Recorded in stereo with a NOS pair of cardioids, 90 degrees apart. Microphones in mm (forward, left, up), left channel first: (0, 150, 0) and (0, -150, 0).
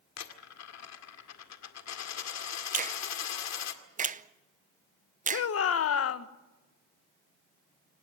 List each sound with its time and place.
0.2 s a dropped coin: 65° left, 2 m
2.7 s a finger snap: 25° right, 0.7 m
5.3 s a shout: 50° left, 1.2 m